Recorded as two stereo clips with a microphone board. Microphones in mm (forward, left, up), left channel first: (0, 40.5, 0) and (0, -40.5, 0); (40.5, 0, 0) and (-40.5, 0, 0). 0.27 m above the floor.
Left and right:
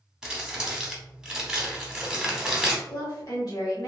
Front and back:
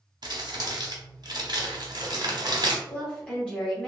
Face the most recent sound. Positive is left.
turn(degrees=75)